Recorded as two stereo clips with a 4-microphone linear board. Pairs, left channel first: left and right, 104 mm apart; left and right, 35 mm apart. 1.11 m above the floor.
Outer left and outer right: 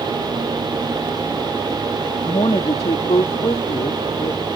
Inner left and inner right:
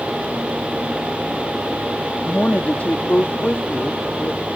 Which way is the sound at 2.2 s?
75° left (ahead or behind).